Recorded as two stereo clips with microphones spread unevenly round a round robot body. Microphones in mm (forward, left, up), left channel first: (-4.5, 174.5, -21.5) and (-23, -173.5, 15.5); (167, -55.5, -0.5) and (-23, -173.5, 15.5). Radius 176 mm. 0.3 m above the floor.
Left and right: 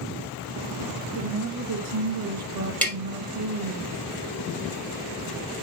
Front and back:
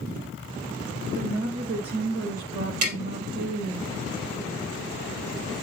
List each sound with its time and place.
1.1 s a woman speaking: 120° right, 1.2 m
2.8 s tapping: 175° left, 3 m